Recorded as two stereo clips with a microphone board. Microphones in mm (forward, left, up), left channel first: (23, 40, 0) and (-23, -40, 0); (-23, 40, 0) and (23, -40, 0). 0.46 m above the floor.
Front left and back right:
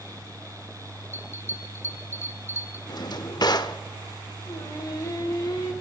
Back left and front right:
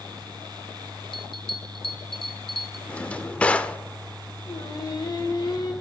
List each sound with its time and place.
1.1 s a bell: 120° left, 0.8 m
2.9 s a drawer: 50° left, 0.5 m
4.5 s singing: 95° left, 1.2 m